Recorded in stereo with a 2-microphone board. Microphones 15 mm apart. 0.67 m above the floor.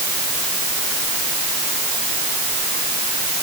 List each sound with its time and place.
Only background noise.